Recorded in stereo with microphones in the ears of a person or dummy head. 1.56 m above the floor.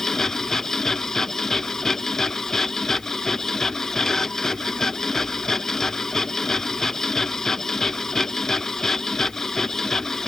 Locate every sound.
0.0 s a machine running: centre (ahead or behind)